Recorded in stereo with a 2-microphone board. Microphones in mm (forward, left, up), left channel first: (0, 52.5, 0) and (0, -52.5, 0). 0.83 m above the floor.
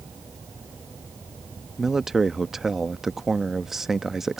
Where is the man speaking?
5° right (ahead or behind).